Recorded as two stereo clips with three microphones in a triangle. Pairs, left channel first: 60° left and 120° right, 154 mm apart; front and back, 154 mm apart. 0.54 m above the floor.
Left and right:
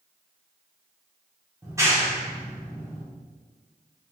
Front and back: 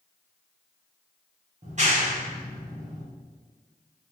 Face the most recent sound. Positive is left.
turn(degrees=175)